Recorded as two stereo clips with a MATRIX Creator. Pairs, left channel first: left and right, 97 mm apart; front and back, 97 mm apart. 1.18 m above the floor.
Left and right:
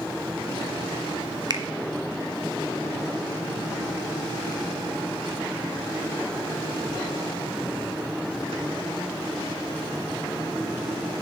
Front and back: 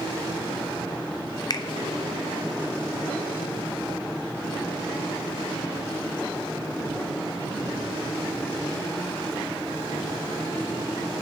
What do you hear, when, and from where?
1.5 s a finger snap: 45° right, 0.6 m